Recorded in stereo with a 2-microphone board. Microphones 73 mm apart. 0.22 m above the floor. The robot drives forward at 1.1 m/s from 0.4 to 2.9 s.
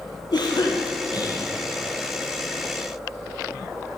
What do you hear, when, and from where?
0.3 s a cough: 70° left (ahead or behind), 5 m; by 1.5 s 55° left (ahead or behind), 5.5 m